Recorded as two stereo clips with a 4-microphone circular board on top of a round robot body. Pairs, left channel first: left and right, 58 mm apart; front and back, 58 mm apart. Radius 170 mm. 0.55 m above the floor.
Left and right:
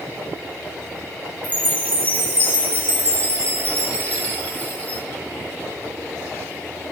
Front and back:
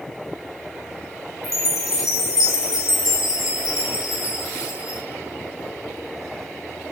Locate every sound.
1.4 s a chime: 30° left, 2.0 m